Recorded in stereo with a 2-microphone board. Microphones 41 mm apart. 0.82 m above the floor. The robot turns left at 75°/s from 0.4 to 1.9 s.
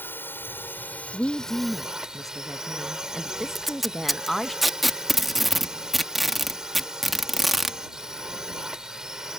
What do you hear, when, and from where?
0.0 s a drone: 95° left; by 9.4 s 15° right
1.1 s a woman speaking: 20° left (ahead or behind); by 4.5 s 5° left (ahead or behind)
3.5 s tape being pulled: 5° right (ahead or behind)